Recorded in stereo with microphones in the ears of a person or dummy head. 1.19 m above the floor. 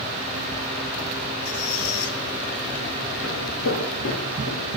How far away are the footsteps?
About 6 m.